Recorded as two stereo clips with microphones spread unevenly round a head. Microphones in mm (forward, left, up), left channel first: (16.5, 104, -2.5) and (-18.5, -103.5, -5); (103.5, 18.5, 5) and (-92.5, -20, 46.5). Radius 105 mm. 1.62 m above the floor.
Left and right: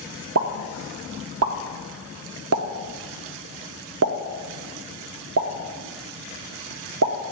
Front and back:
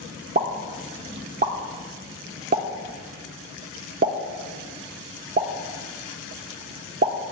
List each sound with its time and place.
0.3 s a pop: 120° right, 0.6 m